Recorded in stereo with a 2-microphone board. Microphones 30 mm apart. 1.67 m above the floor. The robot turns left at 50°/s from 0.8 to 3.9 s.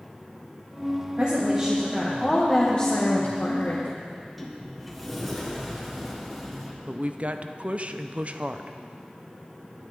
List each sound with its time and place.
1.2 s a woman speaking: 135° right, 1.6 m; by 4.0 s 85° left, 1.6 m
4.1 s a sliding door: centre (ahead or behind), 1.4 m
6.9 s a woman speaking: 45° right (ahead or behind), 0.6 m